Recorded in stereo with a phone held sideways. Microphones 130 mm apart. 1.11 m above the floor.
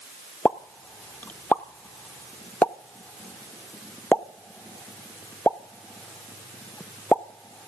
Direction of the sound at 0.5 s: 10° left (ahead or behind).